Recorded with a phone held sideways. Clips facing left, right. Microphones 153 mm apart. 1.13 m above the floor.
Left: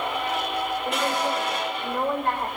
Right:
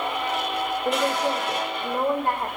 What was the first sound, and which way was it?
A woman speaking, 30° right (ahead or behind).